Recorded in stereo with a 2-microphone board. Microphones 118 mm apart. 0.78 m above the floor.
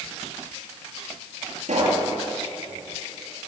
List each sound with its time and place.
1.6 s a pop: 85° right, 9 m